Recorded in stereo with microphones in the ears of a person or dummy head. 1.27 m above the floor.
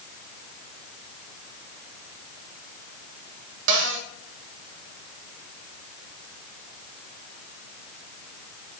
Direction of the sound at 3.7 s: 70° right (ahead or behind).